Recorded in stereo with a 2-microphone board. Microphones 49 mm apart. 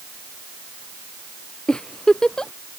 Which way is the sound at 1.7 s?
15° left (ahead or behind).